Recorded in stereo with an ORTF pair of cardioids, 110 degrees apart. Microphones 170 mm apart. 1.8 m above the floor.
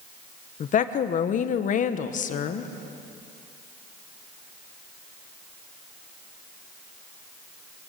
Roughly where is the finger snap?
No finger snap in this recording.